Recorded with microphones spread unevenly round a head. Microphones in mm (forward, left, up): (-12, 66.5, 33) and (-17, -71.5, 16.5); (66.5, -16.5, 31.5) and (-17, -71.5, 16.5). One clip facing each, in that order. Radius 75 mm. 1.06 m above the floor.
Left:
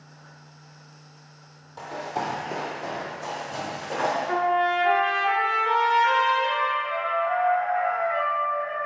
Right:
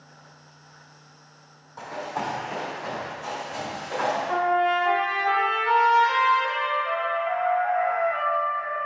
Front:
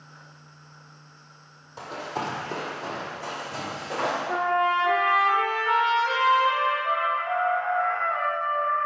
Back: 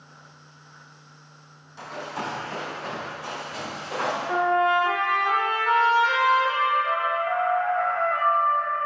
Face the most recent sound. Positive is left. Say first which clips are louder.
# right 1 dB, back 3 dB
turn(degrees=125)